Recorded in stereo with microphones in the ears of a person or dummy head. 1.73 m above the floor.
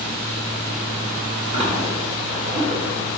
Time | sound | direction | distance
1.5 | a splash | 35° right (ahead or behind) | 3.5 m